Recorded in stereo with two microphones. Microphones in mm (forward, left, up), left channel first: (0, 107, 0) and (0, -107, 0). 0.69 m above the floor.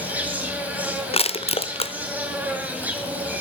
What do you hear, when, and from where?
0.0 s an insect: 10° right (ahead or behind), 1.9 m
1.1 s crushing: 30° left (ahead or behind), 0.6 m